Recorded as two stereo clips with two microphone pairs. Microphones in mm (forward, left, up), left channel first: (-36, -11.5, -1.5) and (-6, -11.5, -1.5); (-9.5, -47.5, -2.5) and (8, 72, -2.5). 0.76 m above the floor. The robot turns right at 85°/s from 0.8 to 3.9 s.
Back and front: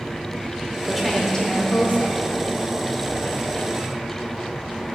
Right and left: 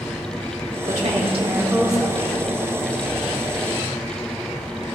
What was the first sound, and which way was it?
A woman speaking, 80° left.